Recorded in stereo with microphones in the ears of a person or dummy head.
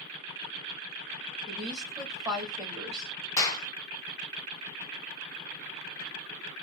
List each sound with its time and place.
1.5 s a woman speaking: 15° right (ahead or behind), 1.9 m
3.4 s a clap: 20° left (ahead or behind), 0.8 m